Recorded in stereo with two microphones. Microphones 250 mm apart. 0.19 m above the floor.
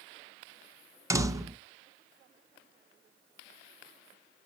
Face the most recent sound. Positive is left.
turn(degrees=-10)  # may be behind; listen again after turning